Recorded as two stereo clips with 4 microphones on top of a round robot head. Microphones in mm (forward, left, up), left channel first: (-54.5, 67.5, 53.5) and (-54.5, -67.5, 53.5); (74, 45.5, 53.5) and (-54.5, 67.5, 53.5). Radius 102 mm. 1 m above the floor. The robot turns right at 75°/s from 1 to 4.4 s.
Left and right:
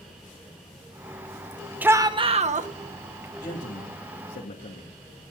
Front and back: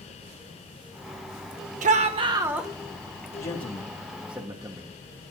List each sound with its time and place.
1.8 s a shout: 170° right, 1.3 m; by 2.7 s 100° right, 1.3 m
3.4 s a man speaking: 20° left, 2.5 m; by 5.0 s 95° left, 2.5 m